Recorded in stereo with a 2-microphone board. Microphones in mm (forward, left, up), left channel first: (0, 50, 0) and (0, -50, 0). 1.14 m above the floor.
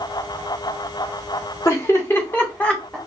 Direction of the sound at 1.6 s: 30° left (ahead or behind).